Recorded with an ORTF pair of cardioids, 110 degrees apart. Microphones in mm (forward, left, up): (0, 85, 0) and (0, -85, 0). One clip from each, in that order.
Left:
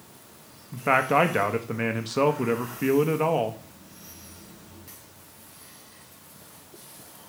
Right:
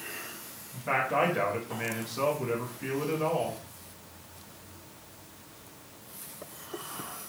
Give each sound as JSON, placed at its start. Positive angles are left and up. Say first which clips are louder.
{"t": 0.7, "sound": "a man speaking", "louder": "left 6 dB", "azimuth_deg": 70, "distance_m": 1.0}